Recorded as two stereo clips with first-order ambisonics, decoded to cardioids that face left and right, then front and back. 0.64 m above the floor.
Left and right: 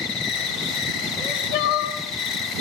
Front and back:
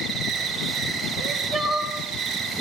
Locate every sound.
0.0 s an insect: 100° left, 2.5 m
1.2 s crying: 90° left, 2.5 m